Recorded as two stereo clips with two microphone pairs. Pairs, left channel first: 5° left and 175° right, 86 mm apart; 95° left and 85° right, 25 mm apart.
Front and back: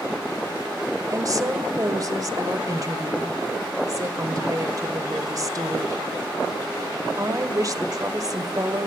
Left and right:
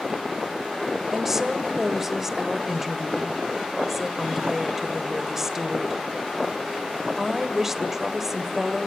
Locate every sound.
1.1 s a woman speaking: 155° right, 1.9 m